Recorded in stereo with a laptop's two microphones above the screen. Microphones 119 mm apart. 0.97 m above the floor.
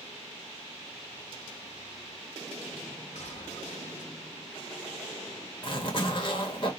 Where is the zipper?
45° left (ahead or behind), 1.2 m.